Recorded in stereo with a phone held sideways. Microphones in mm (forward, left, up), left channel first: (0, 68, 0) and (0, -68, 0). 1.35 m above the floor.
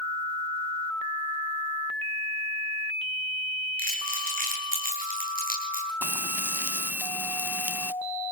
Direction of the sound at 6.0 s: 15° right (ahead or behind).